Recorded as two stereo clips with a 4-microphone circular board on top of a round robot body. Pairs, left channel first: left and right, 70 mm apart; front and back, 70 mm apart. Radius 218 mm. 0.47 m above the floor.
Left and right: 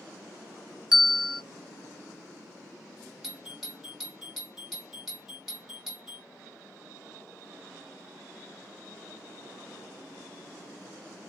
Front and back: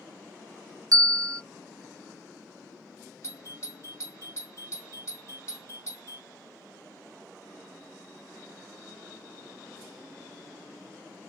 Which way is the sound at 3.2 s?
5° right.